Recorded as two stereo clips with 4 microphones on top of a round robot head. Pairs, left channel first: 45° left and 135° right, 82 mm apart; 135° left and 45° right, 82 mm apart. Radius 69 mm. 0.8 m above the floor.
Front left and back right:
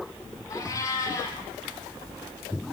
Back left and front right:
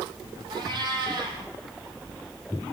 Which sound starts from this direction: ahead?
A cat meowing, at 0.5 s.